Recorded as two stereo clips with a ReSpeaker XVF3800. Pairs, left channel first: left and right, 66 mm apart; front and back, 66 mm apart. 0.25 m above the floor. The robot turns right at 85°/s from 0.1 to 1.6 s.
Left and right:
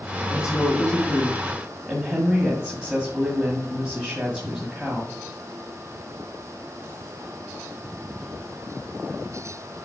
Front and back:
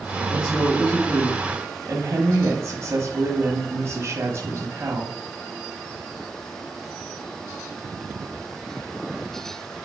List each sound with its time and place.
0.3 s a woman speaking: 85° left, 1.6 m; by 5.1 s 160° right, 1.6 m